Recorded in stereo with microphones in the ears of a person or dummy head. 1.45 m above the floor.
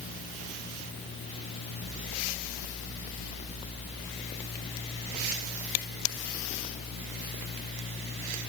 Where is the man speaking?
No man speaking in this recording.